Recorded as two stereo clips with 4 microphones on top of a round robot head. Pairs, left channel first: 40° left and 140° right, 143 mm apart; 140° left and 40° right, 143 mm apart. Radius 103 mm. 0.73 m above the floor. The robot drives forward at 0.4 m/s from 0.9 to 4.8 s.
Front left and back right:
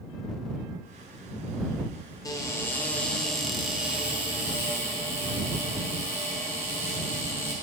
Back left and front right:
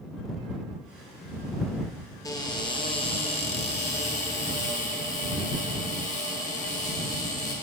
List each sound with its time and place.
2.2 s a cupboard door: 90° left, 1.0 m; by 7.5 s 150° left, 1.4 m